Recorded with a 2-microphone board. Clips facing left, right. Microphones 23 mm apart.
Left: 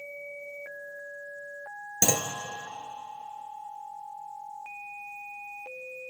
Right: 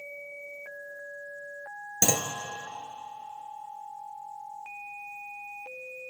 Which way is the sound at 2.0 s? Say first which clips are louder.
Even; 10° left (ahead or behind).